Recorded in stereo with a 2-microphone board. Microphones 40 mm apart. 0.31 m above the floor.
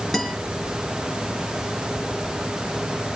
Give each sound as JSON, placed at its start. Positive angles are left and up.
{"t": 0.1, "sound": "a guitar", "side_deg": 0, "distance_m": 4.5}